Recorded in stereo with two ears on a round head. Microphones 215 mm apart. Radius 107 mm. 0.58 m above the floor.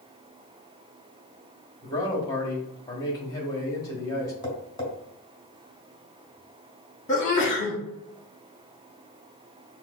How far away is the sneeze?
About 1.1 m.